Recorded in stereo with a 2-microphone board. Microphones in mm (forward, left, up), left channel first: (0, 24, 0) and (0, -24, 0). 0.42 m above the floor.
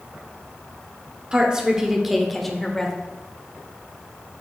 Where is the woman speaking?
20° right (ahead or behind), 1.0 m; by 3.0 s 10° left (ahead or behind), 1.2 m.